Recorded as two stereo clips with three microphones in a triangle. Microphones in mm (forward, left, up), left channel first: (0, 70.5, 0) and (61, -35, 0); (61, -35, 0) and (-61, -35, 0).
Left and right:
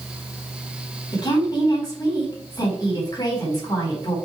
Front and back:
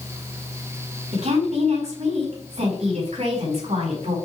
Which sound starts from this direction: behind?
A woman speaking, at 1.1 s.